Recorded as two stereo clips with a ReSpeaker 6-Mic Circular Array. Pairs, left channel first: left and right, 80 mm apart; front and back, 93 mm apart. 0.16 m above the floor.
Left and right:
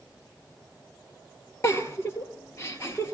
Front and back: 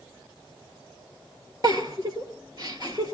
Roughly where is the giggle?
Behind left.